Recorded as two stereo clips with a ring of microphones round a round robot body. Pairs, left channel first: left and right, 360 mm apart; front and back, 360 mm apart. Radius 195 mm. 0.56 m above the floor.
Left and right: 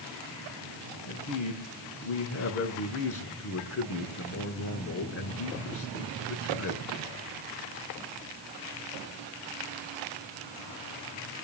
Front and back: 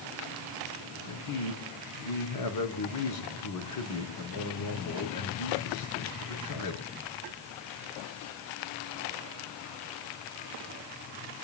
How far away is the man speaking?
About 5.5 m.